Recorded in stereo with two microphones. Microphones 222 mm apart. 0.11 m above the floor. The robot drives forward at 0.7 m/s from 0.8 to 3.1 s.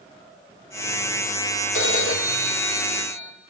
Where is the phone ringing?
70° left (ahead or behind), 2.5 m; by 3.3 s 60° left (ahead or behind), 2.5 m.